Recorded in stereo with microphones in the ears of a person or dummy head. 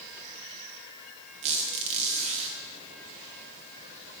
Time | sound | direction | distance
1.4 | a squeak | 40° right (ahead or behind) | 0.9 m